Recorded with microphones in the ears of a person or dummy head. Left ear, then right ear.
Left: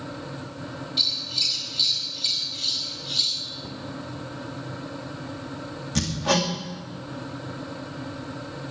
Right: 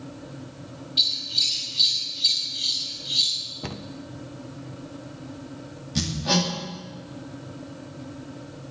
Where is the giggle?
No giggle in this recording.